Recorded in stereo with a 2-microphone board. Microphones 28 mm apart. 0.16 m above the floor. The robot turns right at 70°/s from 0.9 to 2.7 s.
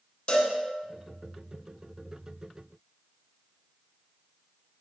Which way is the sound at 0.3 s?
40° left (ahead or behind).